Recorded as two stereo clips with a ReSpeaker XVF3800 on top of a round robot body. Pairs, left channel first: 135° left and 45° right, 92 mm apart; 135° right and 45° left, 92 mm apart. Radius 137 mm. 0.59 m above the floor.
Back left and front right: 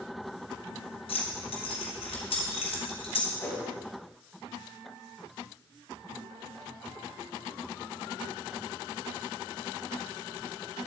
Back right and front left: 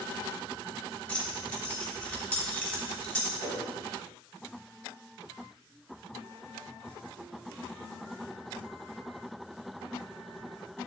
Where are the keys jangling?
145° left, 2.0 m.